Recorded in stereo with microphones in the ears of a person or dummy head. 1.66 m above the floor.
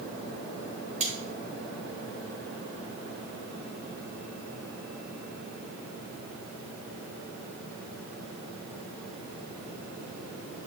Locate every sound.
1.0 s cutlery clinking: 35° right (ahead or behind), 1.4 m